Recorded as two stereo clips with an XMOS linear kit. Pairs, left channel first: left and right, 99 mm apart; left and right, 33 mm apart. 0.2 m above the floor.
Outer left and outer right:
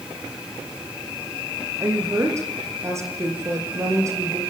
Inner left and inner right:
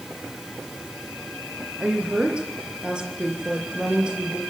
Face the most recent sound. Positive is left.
turn(degrees=-30)  # may be behind; listen again after turning